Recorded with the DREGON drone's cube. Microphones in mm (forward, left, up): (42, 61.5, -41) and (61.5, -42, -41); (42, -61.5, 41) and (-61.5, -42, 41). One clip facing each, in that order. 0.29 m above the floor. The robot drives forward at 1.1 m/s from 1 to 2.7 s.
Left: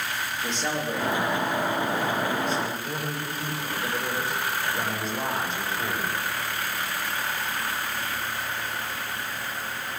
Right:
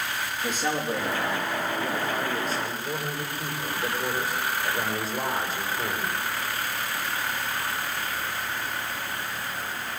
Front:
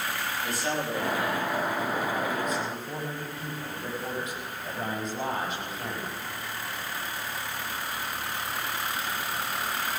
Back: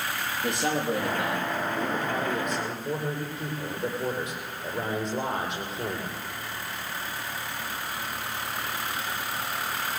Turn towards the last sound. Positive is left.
turn(degrees=-165)